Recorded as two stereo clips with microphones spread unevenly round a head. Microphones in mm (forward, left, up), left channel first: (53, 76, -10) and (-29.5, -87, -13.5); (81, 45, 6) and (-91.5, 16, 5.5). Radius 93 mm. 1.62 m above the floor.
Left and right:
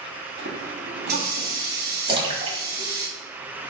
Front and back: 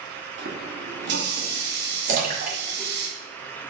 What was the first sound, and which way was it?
A running tap, 150° right.